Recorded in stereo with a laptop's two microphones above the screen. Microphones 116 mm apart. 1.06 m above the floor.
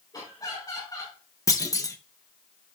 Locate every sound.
0.1 s laughter: 35° left (ahead or behind), 4.5 m
1.5 s a clunk: 30° left (ahead or behind), 0.6 m